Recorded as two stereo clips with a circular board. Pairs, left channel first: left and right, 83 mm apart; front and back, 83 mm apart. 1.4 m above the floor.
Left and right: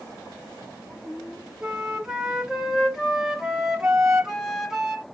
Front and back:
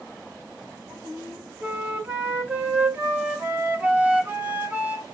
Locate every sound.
1.6 s a flute: 165° right, 0.9 m